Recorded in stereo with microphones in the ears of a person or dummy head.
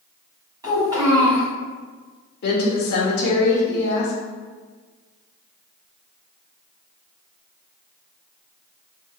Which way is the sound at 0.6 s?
15° right (ahead or behind).